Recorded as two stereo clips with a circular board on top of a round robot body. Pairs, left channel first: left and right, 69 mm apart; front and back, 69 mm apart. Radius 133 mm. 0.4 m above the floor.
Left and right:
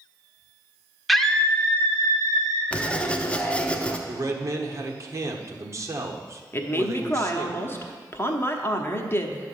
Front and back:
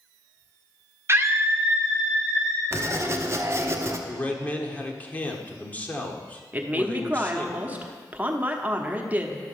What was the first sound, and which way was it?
A scream, straight behind.